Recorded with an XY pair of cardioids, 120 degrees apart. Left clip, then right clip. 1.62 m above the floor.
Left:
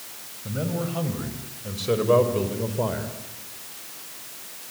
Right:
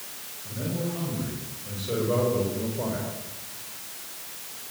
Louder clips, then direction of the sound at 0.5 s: Left 3 dB; 65° left.